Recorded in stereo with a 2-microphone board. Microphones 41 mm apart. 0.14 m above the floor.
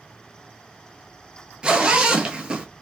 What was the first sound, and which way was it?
A zipper, 25° right (ahead or behind).